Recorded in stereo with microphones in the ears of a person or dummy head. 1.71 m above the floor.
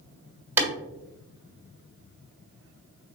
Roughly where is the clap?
Centre.